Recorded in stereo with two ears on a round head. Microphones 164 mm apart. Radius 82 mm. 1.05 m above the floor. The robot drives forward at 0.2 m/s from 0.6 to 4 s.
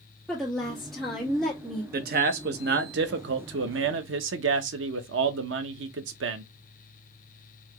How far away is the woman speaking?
About 1.3 m.